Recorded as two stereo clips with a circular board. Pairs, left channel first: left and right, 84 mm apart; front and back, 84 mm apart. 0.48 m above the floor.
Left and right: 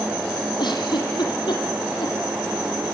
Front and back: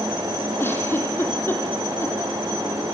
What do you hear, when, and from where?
0.6 s a giggle: 65° left, 4.5 m